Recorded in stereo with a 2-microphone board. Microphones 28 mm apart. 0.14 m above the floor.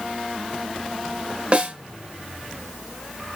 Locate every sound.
1.5 s a snare drum: 40° right (ahead or behind), 2.5 m